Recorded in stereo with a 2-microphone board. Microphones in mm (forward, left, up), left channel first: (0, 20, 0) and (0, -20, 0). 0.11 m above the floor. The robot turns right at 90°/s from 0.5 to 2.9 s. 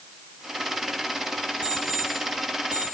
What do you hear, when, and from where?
1.6 s an alarm clock: 40° right (ahead or behind), 5 m; by 3.0 s 25° right (ahead or behind), 5 m